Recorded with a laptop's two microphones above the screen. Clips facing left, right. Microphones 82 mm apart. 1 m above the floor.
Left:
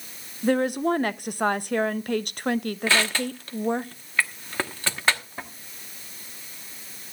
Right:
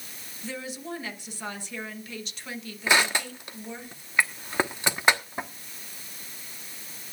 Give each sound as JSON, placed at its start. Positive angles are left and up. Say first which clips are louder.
{"t": 0.4, "sound": "a woman speaking", "louder": "left 14 dB", "side_deg": 60, "distance_m": 0.7}
{"t": 2.9, "sound": "crushing", "louder": "right 2 dB", "side_deg": -15, "distance_m": 1.1}